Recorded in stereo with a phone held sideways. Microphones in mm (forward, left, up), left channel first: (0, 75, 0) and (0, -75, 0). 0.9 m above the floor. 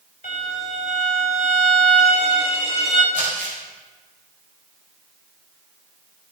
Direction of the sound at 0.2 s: 60° left (ahead or behind).